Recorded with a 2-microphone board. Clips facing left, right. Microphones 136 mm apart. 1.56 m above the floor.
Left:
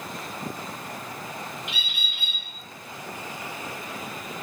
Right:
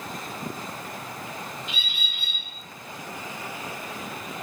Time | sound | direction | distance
1.7 | a bird | 65° left (ahead or behind) | 1.0 m